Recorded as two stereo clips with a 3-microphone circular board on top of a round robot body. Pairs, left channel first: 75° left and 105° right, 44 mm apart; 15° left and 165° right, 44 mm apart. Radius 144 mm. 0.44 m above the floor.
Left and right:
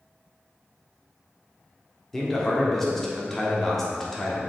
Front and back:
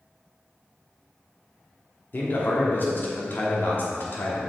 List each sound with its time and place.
2.1 s a man speaking: 5° right, 1.6 m